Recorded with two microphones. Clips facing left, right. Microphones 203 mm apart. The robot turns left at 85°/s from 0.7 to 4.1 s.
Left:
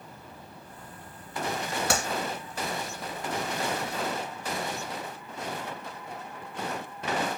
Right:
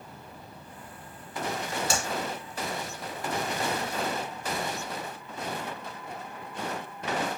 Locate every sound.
1.9 s a clap: 65° left (ahead or behind), 2 m; by 2.1 s 55° left (ahead or behind), 2 m